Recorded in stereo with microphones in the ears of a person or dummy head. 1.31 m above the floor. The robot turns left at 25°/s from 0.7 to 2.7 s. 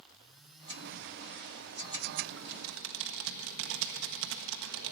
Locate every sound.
2.2 s typing on a keyboard: 85° right, 1.5 m; by 4.9 s 75° right (ahead or behind), 1.5 m